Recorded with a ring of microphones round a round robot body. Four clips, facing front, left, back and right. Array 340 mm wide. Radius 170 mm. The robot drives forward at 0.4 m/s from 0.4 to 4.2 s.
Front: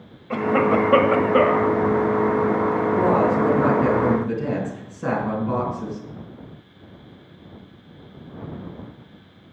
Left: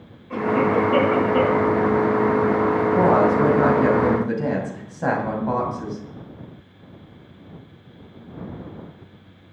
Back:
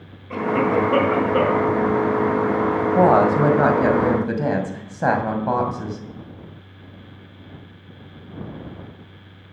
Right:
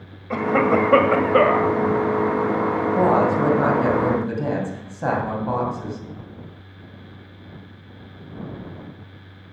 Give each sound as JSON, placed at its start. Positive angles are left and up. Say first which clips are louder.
{"t": 0.3, "sound": "a cough", "louder": "right 1 dB, front 1 dB", "azimuth_deg": -55, "distance_m": 1.9}
{"t": 3.0, "sound": "a woman speaking", "louder": "left 1 dB, back 5 dB", "azimuth_deg": 175, "distance_m": 2.0}